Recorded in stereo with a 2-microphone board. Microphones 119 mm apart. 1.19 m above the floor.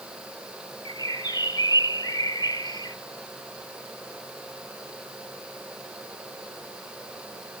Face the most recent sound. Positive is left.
turn(degrees=35)  # may be behind; listen again after turning